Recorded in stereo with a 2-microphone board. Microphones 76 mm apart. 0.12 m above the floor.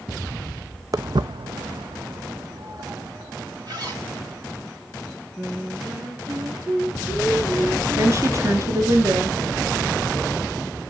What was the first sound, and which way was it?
Footsteps, 45° right (ahead or behind).